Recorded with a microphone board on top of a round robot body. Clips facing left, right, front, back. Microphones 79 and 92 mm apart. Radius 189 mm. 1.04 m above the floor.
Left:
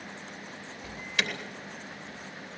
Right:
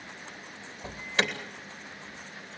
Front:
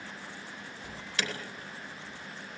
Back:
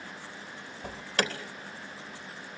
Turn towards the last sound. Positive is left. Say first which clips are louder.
# right 4 dB, back 6 dB
turn(degrees=-145)